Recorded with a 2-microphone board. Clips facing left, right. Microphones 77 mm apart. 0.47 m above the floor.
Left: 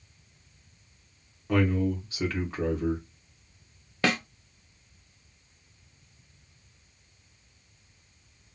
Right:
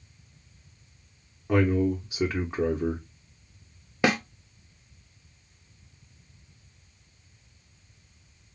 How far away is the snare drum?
About 0.6 m.